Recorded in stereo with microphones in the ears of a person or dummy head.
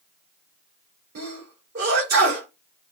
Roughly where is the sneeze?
Right.